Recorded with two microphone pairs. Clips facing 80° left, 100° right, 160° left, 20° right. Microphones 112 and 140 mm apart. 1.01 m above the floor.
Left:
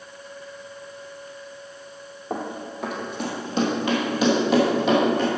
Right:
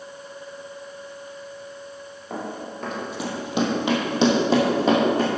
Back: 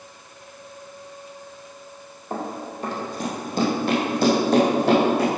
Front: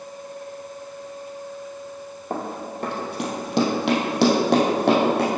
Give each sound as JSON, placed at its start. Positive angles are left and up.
{"t": 2.3, "sound": "running footsteps", "azimuth_deg": 20, "distance_m": 2.0}